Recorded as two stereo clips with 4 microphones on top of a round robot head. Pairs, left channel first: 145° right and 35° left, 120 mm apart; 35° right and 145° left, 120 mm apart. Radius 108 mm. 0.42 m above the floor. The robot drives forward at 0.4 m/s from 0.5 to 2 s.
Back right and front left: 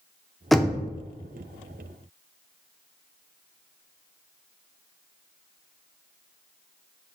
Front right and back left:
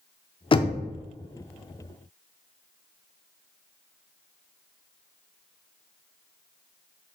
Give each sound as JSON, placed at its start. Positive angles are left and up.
{"t": 0.5, "sound": "knocking", "azimuth_deg": -55, "distance_m": 0.5}